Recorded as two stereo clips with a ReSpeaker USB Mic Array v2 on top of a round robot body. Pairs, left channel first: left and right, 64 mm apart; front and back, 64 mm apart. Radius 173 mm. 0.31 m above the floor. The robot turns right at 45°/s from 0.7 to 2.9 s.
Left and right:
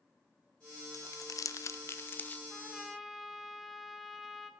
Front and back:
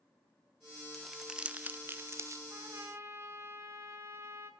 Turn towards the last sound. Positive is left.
turn(degrees=-175)